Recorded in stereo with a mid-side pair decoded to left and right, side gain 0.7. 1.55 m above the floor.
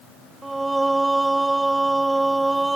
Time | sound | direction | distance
0.4 | singing | 10° right | ?